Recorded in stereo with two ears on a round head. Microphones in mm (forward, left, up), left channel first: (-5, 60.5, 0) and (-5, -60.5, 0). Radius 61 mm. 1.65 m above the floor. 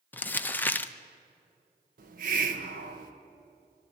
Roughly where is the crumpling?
Centre.